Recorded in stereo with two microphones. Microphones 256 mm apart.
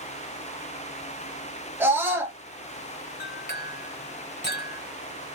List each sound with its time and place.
1.8 s a scream: 10° right (ahead or behind), 0.9 m
3.2 s a clink: 40° left (ahead or behind), 1.1 m